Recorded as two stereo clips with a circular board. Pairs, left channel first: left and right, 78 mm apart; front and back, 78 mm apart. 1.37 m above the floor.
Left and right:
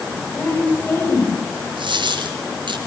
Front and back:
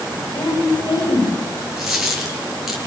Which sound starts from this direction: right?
A dropped coin, at 1.8 s.